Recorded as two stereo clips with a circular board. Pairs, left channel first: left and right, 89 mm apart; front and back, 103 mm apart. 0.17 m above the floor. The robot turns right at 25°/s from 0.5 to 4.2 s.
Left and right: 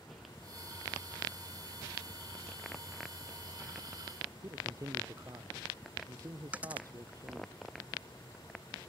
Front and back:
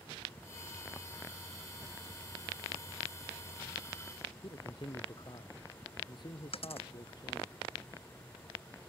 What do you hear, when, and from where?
4.4 s a man speaking: 40° right
6.5 s a dropped coin: 15° right